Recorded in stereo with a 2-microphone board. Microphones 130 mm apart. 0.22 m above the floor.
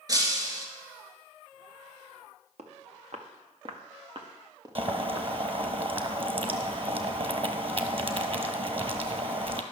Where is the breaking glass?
30° right (ahead or behind), 1.5 m.